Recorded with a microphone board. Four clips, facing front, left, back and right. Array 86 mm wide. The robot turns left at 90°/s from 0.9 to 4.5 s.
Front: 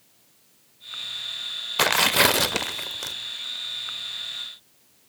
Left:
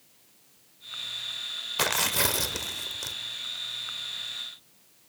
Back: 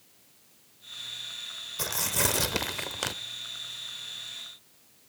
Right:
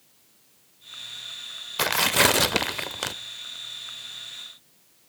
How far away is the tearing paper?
About 0.7 m.